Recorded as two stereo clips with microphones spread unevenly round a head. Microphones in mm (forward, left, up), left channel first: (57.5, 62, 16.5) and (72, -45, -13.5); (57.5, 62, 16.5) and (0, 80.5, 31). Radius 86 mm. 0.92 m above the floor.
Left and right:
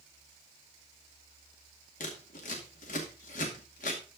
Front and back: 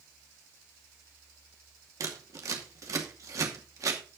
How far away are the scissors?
About 2.5 m.